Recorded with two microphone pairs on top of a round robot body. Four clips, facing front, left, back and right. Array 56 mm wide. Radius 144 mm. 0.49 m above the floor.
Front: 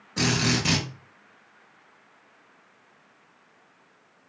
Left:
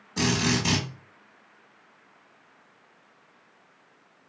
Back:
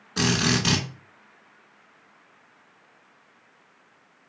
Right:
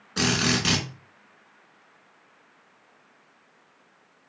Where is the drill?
130° right, 2.5 m.